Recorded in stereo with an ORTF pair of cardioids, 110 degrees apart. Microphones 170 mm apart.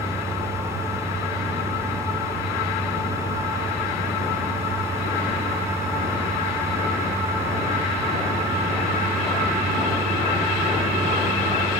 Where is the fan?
15° right, 1.0 m.